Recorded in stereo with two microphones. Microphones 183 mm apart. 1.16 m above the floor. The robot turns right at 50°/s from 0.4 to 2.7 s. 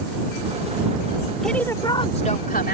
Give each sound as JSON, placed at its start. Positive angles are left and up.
{"t": 1.4, "sound": "a woman speaking", "azimuth_deg": 0}